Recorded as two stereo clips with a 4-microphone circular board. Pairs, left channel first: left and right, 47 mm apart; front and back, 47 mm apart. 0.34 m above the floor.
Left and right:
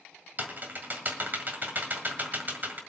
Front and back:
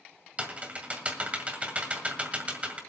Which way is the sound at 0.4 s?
125° right.